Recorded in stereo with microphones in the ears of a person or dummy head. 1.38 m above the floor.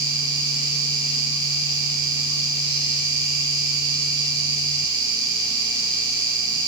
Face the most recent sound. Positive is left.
turn(degrees=-25)  # may be behind; listen again after turning